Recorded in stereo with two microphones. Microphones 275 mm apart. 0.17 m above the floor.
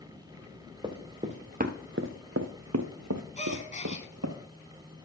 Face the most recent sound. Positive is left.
turn(degrees=25)  # may be behind; listen again after turning